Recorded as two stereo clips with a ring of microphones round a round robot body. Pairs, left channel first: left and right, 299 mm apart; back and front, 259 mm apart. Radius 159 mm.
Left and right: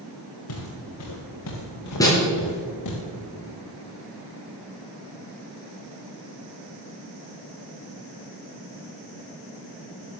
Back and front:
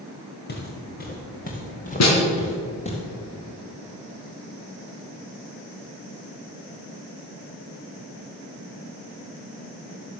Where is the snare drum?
170° left, 4.5 m.